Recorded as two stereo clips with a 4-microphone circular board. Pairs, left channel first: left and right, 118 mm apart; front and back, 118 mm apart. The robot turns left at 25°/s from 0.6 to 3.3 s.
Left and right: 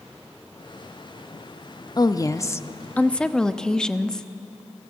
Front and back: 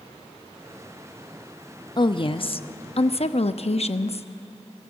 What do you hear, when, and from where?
2.0 s a woman speaking: 40° left, 0.9 m; by 4.3 s 10° left, 0.9 m